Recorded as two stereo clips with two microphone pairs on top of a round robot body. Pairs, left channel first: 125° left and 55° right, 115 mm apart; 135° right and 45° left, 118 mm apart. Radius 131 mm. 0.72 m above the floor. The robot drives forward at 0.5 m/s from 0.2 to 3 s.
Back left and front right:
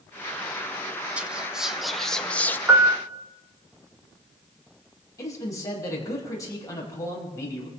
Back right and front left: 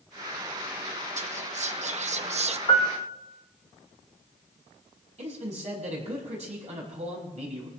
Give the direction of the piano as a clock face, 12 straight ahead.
4 o'clock.